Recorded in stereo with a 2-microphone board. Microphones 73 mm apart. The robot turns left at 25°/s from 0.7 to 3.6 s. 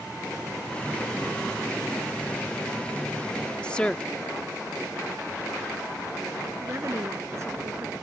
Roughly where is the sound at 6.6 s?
Right.